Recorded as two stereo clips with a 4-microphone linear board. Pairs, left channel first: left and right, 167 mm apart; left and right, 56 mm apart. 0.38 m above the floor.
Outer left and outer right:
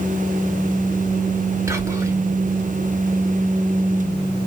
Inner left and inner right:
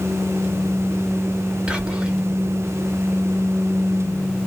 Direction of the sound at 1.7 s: 20° right (ahead or behind).